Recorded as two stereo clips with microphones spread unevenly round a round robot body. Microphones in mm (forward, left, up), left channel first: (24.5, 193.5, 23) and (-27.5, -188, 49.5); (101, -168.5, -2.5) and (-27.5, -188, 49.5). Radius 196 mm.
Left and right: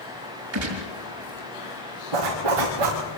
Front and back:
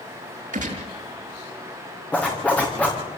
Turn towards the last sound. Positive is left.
turn(degrees=-70)